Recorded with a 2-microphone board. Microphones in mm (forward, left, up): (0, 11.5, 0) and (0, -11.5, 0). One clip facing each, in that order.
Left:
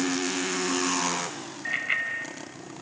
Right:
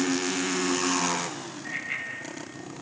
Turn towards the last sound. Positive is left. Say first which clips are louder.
# left 6 dB
turn(degrees=35)  # may be behind; listen again after turning